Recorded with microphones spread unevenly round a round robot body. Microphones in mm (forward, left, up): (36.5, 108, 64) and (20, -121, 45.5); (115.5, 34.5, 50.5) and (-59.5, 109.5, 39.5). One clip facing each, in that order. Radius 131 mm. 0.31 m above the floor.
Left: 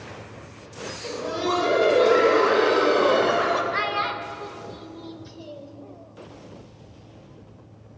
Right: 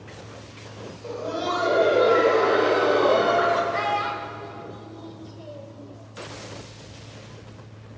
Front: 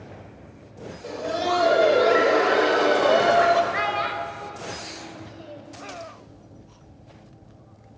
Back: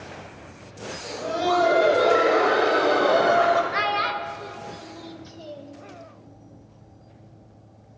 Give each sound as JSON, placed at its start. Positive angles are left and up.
{"t": 1.0, "sound": "laughter", "azimuth_deg": 35, "distance_m": 1.4}
{"t": 3.7, "sound": "a child speaking", "azimuth_deg": 145, "distance_m": 0.7}